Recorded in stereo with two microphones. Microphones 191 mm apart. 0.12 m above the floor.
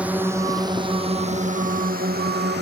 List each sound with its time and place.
0.0 s a drone: 5° right (ahead or behind); by 2.6 s 60° right (ahead or behind)